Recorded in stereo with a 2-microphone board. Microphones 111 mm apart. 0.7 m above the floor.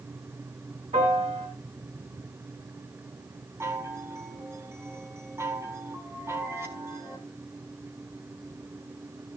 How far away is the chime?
About 3.5 m.